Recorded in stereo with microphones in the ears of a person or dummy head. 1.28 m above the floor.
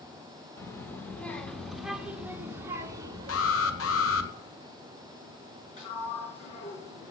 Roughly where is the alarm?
Left.